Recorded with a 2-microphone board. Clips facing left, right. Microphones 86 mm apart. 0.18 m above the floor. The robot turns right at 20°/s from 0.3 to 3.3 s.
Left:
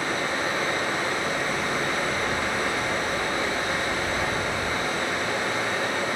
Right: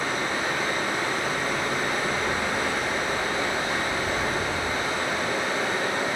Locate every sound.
0.0 s running water: 145° left, 1.7 m; by 6.2 s 155° right, 1.7 m